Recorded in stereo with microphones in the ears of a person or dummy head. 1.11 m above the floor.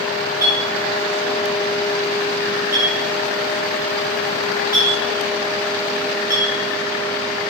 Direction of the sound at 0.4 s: 15° right (ahead or behind).